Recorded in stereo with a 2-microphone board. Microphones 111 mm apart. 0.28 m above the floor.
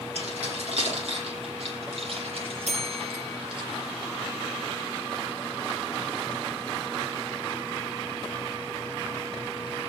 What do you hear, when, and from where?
0.1 s keys jangling: 70° right (ahead or behind), 9 m; by 3.6 s 50° right (ahead or behind), 4.5 m
2.6 s a bell: 85° right, 4 m